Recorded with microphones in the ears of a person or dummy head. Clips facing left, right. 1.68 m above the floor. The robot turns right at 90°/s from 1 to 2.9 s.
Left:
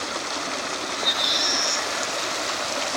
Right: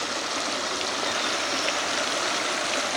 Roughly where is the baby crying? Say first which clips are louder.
Even; ahead left.